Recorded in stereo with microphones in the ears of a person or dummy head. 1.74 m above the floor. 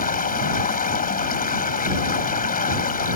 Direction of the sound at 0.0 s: 40° left (ahead or behind).